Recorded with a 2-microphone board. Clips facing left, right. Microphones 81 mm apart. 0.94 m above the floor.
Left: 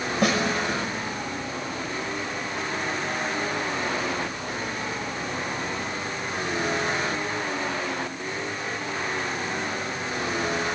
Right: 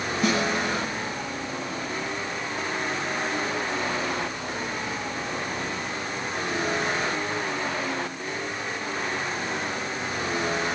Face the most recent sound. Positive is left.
turn(degrees=80)